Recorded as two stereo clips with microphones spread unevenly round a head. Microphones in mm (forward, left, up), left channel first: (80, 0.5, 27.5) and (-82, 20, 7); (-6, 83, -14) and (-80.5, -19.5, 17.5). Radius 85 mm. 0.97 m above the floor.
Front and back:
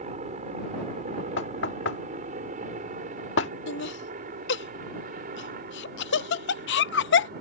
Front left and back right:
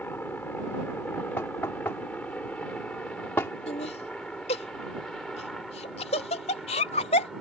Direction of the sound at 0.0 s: 130° left.